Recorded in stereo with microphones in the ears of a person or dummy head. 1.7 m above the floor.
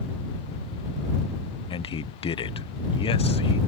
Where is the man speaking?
30° left (ahead or behind).